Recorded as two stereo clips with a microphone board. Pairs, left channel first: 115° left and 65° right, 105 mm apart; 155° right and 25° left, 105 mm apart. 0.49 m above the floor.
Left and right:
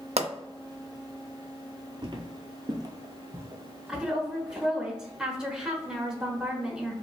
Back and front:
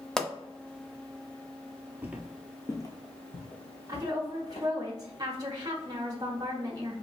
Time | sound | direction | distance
0.2 | a pop | 75° right | 0.5 m
2.0 | footsteps | 45° right | 0.7 m
3.9 | a woman speaking | 5° left | 0.8 m